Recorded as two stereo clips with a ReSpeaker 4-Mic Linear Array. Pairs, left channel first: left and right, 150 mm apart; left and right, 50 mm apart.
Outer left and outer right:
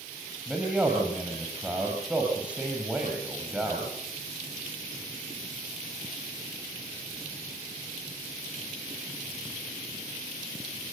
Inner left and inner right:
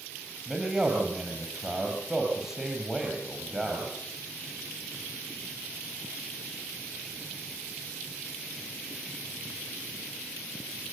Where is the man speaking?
10° right (ahead or behind), 4.5 m.